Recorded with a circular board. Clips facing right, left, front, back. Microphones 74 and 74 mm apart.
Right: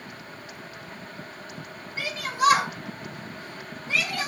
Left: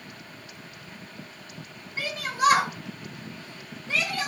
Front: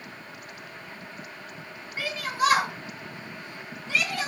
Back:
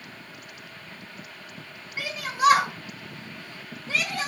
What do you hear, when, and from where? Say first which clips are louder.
2.0 s a shout: even, back 1 dB; 110° left, 1.5 m; by 4.3 s 155° right, 1.6 m